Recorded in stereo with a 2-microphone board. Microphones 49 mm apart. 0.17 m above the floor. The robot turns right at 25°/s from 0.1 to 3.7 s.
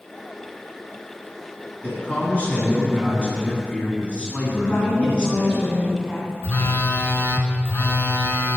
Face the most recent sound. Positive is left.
turn(degrees=50)  # may be behind; listen again after turning